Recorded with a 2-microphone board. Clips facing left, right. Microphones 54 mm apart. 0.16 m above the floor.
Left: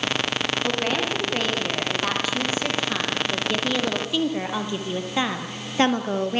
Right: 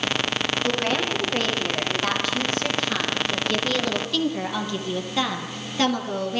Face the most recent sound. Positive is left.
turn(degrees=35)  # may be behind; listen again after turning